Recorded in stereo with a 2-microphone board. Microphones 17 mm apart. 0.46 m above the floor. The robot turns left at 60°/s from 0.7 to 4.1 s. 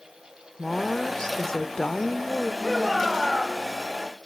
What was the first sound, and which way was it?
A woman speaking, 140° left.